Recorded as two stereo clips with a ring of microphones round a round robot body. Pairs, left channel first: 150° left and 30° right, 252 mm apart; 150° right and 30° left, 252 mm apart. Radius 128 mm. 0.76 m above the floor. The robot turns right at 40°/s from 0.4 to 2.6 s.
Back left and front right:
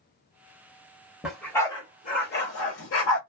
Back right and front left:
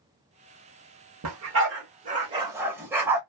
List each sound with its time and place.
1.2 s a dog barking: 55° left, 0.9 m; by 3.2 s 110° left, 0.9 m